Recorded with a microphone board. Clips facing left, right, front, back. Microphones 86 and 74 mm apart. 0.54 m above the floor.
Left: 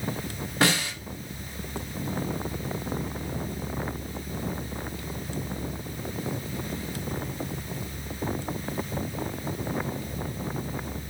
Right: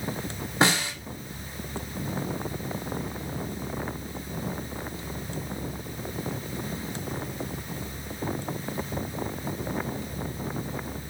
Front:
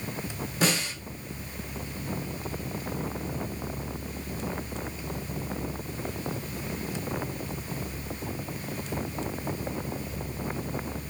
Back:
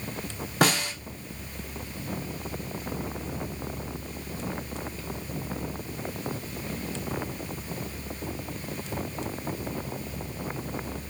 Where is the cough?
I don't hear a cough.